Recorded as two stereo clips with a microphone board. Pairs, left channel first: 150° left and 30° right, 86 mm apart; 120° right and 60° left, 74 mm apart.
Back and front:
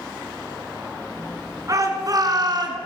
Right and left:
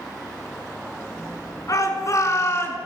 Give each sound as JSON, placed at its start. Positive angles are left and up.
{"t": 1.7, "sound": "a shout", "azimuth_deg": -80, "distance_m": 5.0}